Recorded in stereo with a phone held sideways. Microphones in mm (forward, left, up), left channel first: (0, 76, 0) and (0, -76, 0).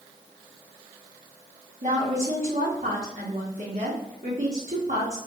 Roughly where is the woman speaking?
Right.